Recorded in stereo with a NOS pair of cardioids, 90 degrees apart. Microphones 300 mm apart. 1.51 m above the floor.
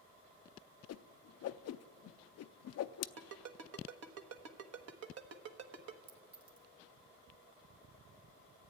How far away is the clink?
About 2.5 m.